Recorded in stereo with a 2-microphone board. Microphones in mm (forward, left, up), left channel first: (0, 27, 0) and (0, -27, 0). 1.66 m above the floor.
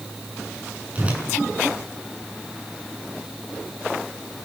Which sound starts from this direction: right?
A whoosh, at 0.9 s.